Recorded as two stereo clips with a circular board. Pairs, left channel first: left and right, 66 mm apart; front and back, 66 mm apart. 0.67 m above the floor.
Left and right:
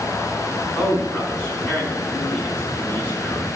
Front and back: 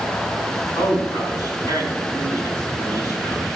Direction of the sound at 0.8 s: 25° left.